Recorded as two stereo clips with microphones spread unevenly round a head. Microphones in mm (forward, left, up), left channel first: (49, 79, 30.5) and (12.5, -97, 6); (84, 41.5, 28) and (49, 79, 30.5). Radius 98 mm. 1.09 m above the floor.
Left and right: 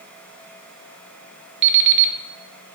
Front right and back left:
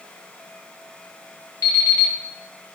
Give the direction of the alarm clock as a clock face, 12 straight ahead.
3 o'clock.